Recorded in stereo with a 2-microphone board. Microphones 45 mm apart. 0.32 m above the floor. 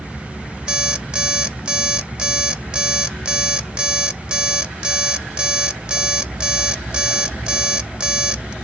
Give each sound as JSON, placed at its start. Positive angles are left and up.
{"t": 0.7, "sound": "an alarm clock", "side_deg": -20, "distance_m": 0.6}